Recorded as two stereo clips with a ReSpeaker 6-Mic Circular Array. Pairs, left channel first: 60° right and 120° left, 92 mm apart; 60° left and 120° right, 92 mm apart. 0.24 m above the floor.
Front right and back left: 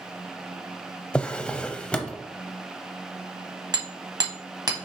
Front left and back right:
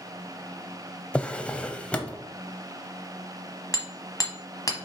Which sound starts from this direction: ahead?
A drawer, at 1.1 s.